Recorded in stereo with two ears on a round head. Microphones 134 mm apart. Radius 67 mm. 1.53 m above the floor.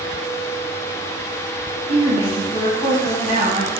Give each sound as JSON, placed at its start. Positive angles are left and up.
{"t": 1.9, "sound": "a woman speaking", "side_deg": 40, "distance_m": 1.0}